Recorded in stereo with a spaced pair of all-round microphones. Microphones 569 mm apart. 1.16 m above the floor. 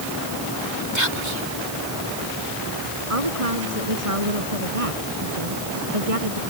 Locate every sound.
0.9 s whispering: 50° right (ahead or behind)
3.1 s a woman speaking: 70° right (ahead or behind)